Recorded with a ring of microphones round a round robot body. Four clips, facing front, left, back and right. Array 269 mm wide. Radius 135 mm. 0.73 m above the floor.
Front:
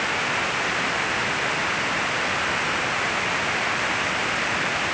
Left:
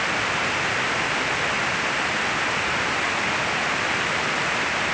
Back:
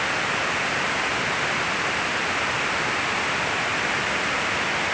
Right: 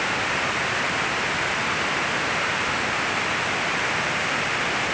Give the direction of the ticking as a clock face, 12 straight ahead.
I don't hear ticking.